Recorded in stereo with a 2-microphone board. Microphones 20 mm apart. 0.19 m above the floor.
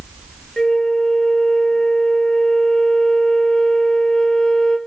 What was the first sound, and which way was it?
A flute, 30° left (ahead or behind).